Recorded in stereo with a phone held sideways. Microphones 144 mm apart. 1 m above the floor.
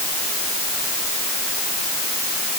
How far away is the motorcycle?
No motorcycle in this recording.